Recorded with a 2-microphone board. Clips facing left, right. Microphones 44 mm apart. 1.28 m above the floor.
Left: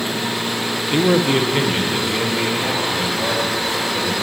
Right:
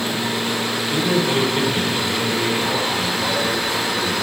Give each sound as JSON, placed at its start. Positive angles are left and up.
{"t": 0.9, "sound": "a man speaking", "side_deg": 35, "distance_m": 0.6}